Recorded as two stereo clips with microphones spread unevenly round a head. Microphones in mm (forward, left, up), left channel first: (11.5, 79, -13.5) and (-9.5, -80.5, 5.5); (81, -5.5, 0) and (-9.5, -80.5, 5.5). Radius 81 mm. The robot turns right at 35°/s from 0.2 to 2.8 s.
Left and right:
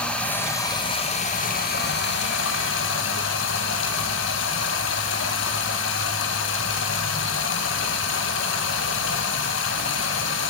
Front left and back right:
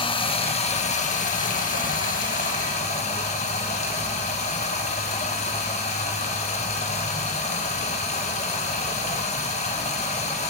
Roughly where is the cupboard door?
No cupboard door in this recording.